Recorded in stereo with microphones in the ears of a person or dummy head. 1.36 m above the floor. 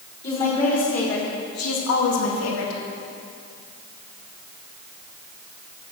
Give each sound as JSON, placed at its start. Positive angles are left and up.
{"t": 0.2, "sound": "a woman speaking", "side_deg": 40, "distance_m": 3.0}